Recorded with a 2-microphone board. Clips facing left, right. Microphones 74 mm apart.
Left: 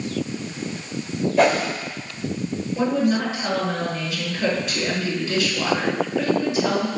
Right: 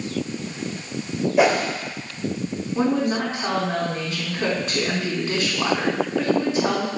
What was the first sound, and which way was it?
A whoosh, 10° right (ahead or behind).